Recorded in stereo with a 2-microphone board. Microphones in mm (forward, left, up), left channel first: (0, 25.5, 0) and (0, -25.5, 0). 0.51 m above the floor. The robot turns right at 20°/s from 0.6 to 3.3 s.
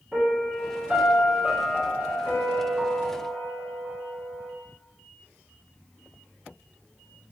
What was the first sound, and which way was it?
A piano, 155° right.